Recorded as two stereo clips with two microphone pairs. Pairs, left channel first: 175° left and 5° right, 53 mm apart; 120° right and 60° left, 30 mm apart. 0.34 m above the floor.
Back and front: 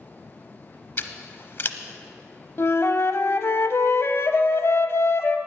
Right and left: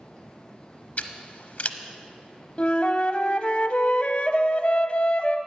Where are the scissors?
145° right, 0.8 m.